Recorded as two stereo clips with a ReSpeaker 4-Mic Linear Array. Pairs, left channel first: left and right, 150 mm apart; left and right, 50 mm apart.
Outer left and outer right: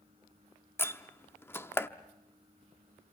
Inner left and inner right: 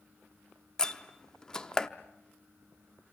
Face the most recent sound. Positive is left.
turn(degrees=15)  # may be behind; listen again after turning